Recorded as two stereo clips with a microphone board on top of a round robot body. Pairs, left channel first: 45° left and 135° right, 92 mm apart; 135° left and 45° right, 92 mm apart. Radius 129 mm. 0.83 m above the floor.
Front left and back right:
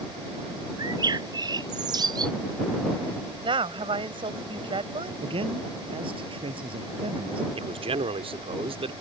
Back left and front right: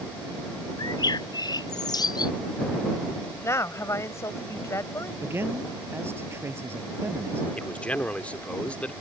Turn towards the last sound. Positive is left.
turn(degrees=-150)